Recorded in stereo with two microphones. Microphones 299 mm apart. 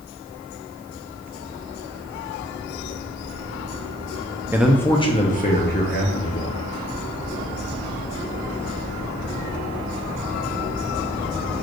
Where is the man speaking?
10° right (ahead or behind), 0.6 m; by 6.6 s 45° left (ahead or behind), 1.4 m.